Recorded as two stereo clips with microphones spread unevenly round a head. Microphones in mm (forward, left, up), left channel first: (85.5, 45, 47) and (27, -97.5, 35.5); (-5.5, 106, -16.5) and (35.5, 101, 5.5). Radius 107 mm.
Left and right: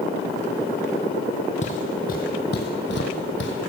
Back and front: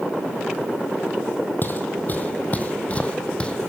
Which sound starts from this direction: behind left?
Footsteps, at 1.6 s.